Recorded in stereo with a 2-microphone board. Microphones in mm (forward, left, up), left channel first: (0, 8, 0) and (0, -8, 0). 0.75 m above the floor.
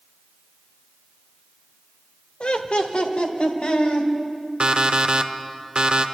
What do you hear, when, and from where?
2.4 s laughter: 60° left (ahead or behind), 1.5 m; by 4.1 s 70° left (ahead or behind), 3.5 m
4.6 s an alarm clock: 45° right (ahead or behind), 1.0 m